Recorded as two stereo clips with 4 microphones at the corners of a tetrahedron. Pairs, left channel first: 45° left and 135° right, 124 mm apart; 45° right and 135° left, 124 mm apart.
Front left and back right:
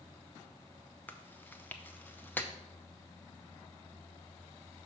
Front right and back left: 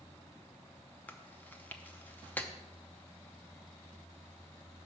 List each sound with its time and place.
1.1 s chewing: straight ahead, 0.7 m